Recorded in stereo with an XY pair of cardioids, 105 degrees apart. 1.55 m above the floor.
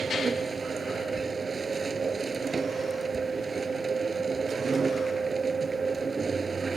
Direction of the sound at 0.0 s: 25° right.